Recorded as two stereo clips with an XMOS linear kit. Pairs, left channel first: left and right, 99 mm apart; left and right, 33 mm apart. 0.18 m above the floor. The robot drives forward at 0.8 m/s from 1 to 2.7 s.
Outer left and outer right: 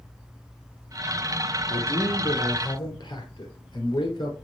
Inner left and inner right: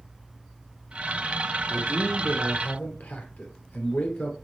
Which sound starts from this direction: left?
A man speaking, at 1.7 s.